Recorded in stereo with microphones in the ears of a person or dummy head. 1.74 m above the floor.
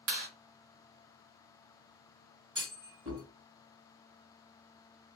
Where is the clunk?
25° right (ahead or behind), 1.8 m.